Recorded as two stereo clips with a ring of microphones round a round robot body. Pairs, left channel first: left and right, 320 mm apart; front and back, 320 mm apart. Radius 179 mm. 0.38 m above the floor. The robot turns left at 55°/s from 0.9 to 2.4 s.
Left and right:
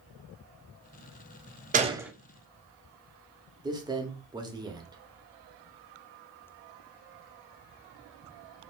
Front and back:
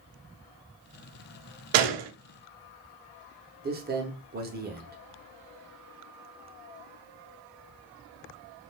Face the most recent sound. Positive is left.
turn(degrees=-155)